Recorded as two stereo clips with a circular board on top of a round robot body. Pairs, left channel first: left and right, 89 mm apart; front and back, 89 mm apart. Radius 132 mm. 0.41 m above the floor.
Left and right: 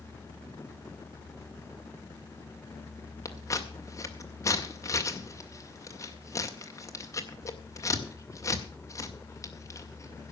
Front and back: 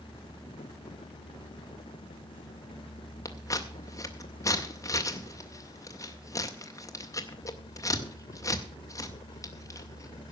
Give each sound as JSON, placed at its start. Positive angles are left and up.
{"t": 3.2, "sound": "scissors", "azimuth_deg": 45, "distance_m": 2.0}